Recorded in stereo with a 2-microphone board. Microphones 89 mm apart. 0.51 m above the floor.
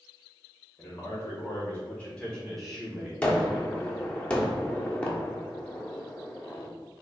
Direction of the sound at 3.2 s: 15° left (ahead or behind).